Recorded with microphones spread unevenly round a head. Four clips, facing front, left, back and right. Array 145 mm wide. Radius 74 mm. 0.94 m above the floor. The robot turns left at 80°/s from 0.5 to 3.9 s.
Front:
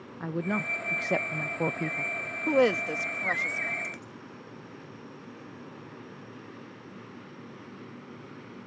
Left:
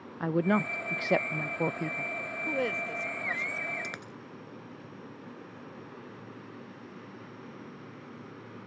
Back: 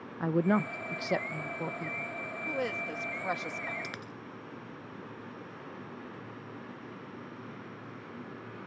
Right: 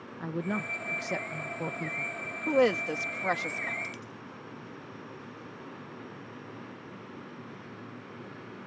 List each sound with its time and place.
0.2 s a woman speaking: 125° left; by 2.1 s straight ahead
2.5 s a woman speaking: 20° right; by 3.7 s 125° right
3.8 s a dropped coin: 110° left; by 4.1 s 105° left